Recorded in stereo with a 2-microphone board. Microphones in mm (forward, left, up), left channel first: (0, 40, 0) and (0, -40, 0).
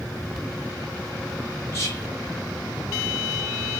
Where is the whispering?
35° left (ahead or behind), 2.5 m.